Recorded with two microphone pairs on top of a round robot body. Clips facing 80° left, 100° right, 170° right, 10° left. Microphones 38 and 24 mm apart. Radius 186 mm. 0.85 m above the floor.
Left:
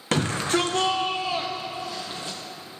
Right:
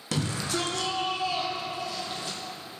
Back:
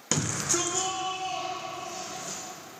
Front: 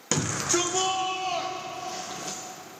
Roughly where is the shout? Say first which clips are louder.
Left 6 dB, front 2 dB; left.